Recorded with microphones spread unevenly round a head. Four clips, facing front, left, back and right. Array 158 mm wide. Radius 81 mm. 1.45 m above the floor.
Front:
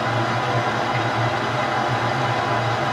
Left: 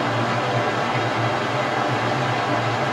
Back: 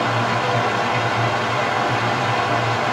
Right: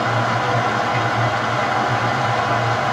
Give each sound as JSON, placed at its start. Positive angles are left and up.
{"t": 0.0, "sound": "running water", "azimuth_deg": -110, "distance_m": 1.6}